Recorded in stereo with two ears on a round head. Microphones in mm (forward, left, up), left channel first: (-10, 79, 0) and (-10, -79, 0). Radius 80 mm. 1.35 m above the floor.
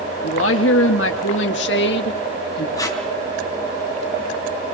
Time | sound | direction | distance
0.2 | a woman speaking | 85° left | 2 m
2.8 | tape being pulled | 20° left (ahead or behind) | 3.5 m